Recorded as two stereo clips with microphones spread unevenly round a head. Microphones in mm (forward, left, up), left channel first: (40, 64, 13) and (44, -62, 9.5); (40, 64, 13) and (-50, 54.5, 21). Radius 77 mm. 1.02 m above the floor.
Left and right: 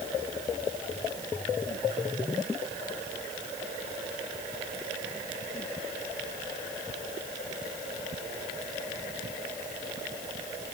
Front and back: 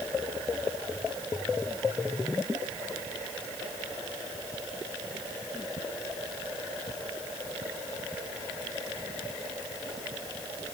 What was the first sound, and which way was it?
Only background noise.